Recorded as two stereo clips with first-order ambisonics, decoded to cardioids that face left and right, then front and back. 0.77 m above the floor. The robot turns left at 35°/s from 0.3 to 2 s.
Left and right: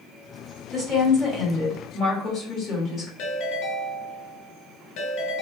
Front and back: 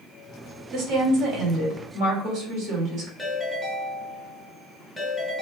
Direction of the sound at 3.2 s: 90° left.